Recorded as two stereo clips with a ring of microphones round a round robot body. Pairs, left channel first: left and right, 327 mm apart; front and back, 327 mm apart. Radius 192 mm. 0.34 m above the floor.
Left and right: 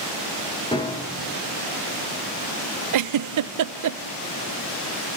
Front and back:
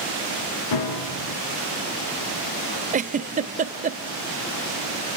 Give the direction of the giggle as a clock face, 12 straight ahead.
4 o'clock.